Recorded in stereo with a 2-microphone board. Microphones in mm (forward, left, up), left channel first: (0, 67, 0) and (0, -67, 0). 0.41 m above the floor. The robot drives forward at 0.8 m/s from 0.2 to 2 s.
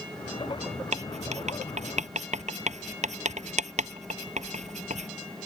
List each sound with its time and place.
0.9 s writing: 55° right (ahead or behind); by 5.1 s 60° right (ahead or behind)